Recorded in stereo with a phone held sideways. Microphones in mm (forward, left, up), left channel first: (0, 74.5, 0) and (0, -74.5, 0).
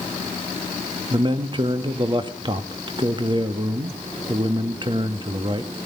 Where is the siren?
No siren in this recording.